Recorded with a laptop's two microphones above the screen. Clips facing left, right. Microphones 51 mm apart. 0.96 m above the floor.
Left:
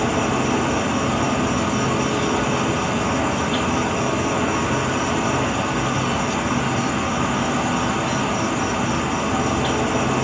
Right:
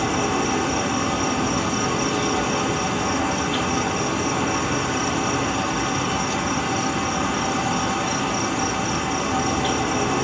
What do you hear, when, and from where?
0.0 s an insect: 10° left (ahead or behind), 1.0 m